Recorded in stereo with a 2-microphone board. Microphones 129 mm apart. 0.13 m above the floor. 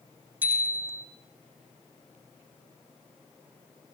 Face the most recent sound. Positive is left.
turn(degrees=-15)  # may be behind; listen again after turning